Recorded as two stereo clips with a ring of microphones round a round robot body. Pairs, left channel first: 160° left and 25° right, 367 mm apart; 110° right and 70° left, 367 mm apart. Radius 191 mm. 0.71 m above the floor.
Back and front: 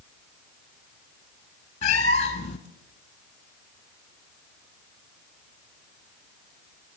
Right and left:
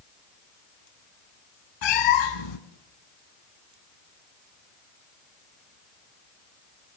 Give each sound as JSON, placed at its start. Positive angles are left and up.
{"t": 1.8, "sound": "a cat meowing", "azimuth_deg": -130, "distance_m": 2.5}